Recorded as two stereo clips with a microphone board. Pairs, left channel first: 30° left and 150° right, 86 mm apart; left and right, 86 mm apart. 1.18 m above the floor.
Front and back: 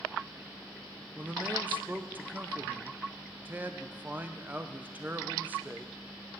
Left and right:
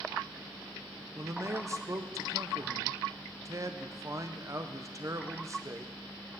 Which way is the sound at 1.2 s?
100° right.